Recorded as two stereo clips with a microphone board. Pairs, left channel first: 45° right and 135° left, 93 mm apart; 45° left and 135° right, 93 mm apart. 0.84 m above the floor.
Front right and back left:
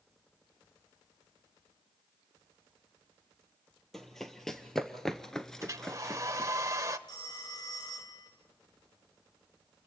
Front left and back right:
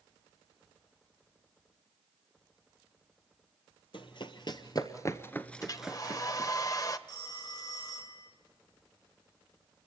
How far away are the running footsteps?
About 1.5 m.